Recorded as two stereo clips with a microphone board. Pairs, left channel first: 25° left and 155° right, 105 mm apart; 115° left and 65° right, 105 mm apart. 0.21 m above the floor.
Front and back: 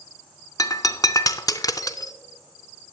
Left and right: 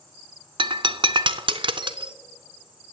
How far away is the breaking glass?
About 0.6 m.